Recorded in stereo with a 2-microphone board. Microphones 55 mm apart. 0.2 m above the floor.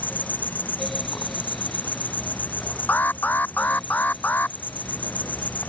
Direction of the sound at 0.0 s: 35° left (ahead or behind).